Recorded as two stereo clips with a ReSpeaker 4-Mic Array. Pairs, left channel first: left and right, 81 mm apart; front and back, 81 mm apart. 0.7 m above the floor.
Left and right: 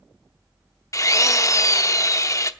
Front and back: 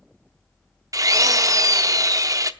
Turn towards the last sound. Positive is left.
turn(degrees=135)